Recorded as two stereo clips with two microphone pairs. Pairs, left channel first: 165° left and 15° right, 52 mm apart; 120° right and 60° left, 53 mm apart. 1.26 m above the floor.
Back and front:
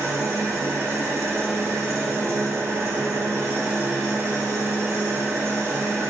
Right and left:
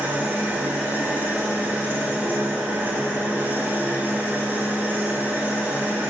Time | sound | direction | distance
0.0 | an engine running | 5° left | 1.8 m